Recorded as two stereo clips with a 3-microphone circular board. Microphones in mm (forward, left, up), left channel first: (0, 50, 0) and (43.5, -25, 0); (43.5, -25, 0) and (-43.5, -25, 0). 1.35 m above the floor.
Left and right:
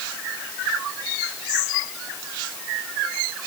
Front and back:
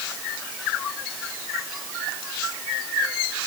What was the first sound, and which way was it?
Only background noise.